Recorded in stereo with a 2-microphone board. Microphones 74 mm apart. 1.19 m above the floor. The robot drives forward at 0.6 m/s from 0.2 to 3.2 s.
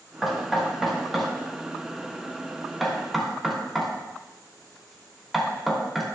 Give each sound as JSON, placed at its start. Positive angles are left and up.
{"t": 0.2, "sound": "knocking", "side_deg": 0, "distance_m": 4.5}